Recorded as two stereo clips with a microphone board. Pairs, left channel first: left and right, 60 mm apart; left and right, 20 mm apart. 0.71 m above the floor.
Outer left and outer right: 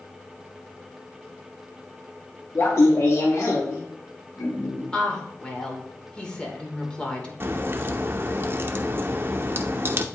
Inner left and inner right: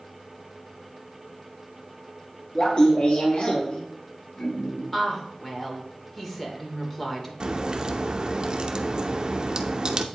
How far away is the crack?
About 0.7 m.